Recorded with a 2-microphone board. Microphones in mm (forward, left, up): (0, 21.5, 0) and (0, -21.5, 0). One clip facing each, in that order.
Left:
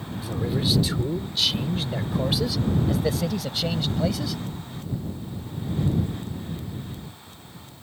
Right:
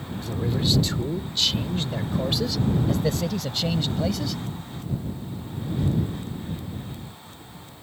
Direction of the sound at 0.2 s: 5° left (ahead or behind).